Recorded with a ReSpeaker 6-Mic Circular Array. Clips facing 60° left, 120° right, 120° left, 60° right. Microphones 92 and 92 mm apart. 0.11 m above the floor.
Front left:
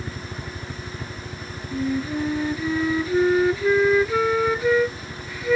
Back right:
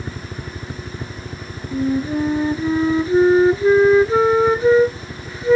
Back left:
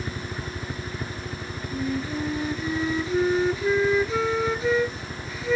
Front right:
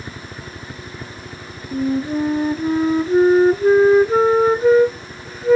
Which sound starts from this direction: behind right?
A helicopter, at 0.0 s.